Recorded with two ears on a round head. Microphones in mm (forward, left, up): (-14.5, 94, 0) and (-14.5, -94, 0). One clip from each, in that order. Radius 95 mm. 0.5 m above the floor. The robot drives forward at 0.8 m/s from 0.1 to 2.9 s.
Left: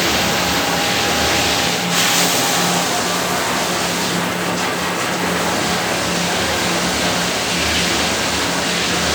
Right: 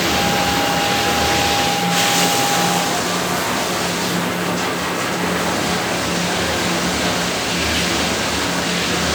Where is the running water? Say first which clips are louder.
Even; 15° left (ahead or behind).